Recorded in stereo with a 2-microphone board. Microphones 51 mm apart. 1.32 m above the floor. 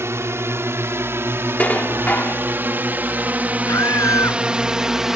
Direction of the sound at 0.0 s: 60° right (ahead or behind).